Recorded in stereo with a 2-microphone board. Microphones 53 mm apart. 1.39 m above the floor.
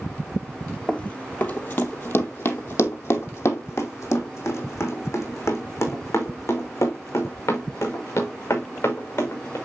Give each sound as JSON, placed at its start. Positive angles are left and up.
{"t": 0.9, "sound": "running footsteps", "side_deg": 25, "distance_m": 1.5}